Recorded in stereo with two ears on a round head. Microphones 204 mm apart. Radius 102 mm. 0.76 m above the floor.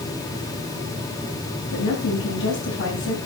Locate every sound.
1.7 s a woman speaking: 60° left (ahead or behind), 4.5 m